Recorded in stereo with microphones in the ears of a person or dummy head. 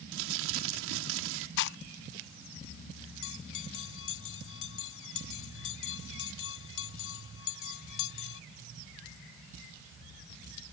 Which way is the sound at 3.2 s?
85° left.